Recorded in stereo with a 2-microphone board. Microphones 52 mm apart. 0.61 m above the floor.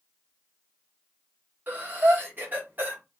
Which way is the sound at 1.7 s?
35° right (ahead or behind).